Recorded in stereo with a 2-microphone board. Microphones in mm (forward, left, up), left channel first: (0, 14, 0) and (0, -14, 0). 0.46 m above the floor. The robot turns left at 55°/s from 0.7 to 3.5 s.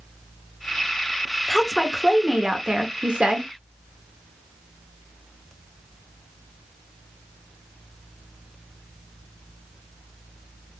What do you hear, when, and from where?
1.5 s a woman speaking: 25° left, 0.9 m; by 3.5 s 85° right, 0.9 m